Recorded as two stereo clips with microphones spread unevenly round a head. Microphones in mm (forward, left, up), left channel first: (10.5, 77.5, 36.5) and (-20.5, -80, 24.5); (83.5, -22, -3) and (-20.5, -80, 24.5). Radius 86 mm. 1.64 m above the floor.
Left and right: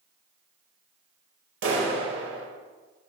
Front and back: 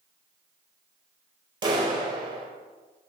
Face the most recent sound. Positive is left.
turn(degrees=-105)